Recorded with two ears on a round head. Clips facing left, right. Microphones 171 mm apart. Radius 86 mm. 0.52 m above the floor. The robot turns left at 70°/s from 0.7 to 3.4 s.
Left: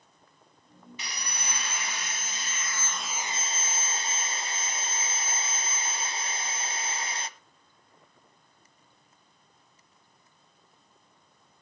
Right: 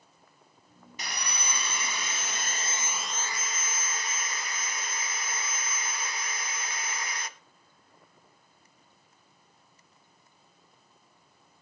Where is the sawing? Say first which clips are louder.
Right 4 dB; 35° right, 1.4 m; by 7.3 s 155° left, 1.4 m.